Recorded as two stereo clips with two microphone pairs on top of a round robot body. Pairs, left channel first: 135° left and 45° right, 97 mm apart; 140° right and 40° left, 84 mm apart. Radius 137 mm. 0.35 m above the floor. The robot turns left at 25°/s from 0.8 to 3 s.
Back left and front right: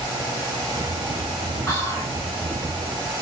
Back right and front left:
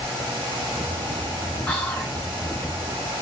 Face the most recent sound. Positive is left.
turn(degrees=130)